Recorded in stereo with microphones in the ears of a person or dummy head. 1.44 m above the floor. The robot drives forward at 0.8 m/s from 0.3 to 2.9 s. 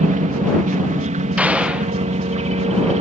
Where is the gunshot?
5° right (ahead or behind).